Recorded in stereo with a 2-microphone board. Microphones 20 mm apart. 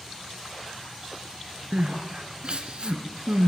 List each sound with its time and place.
1.7 s crying: 50° right (ahead or behind), 2 m